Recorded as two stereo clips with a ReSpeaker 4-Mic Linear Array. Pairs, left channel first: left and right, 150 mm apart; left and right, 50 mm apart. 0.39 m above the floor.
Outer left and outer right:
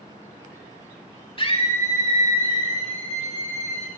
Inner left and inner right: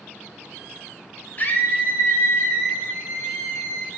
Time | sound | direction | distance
1.4 | a scream | 35° left (ahead or behind) | 1.4 m